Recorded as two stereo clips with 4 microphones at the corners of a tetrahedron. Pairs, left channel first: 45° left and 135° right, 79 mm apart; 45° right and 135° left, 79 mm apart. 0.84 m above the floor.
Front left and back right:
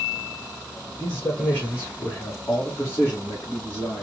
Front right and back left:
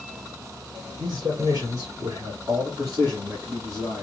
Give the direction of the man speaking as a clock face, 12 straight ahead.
9 o'clock.